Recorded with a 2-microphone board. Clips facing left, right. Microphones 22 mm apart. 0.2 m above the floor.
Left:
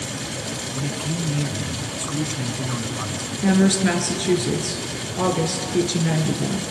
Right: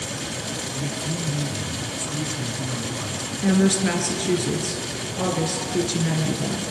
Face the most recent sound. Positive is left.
turn(degrees=15)  # may be behind; listen again after turning